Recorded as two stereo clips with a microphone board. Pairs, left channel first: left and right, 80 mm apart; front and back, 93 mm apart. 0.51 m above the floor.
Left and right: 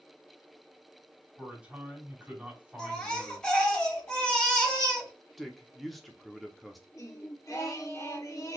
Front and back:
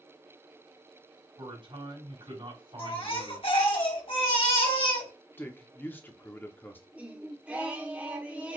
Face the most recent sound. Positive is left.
turn(degrees=110)